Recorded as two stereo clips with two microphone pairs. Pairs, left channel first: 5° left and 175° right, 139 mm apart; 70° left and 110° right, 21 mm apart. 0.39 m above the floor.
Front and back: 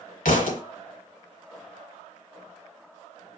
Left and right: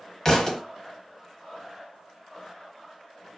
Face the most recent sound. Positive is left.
turn(degrees=10)